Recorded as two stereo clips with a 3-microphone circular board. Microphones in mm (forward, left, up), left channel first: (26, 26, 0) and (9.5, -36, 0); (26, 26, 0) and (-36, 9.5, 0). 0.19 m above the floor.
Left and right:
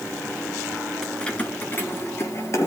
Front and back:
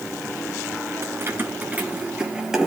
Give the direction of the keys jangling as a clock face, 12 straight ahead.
7 o'clock.